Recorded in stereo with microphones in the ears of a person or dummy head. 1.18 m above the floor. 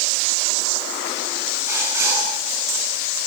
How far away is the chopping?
No chopping in this recording.